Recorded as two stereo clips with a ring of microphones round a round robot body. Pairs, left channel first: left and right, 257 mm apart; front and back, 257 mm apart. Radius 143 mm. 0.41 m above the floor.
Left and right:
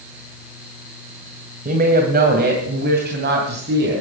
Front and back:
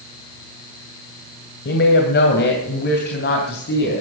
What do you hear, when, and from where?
1.6 s a woman speaking: 40° right, 2 m; by 4.0 s 45° right, 3.5 m